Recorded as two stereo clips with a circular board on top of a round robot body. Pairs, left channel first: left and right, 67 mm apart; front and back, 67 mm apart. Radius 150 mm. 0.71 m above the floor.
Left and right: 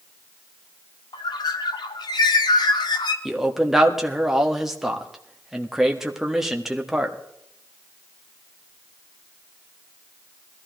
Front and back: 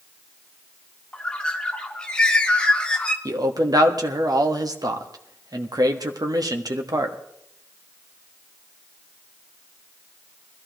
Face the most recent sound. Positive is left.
turn(degrees=-175)